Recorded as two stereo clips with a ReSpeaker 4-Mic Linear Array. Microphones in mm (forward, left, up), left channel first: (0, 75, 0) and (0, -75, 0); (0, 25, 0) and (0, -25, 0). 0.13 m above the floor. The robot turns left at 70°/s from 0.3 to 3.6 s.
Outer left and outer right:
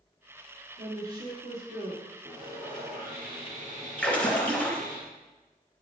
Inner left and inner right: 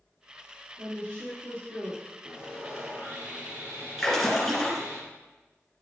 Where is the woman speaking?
10° right, 2.5 m; by 2.0 s 95° right, 2.5 m.